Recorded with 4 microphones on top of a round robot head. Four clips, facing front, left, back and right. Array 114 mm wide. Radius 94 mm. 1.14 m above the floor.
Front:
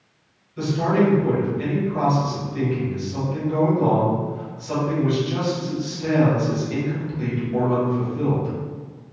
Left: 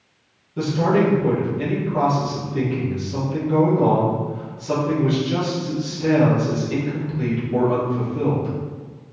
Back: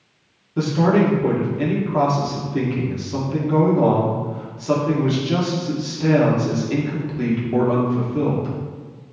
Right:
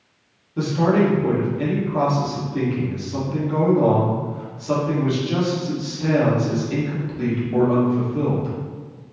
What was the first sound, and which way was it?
A man speaking, straight behind.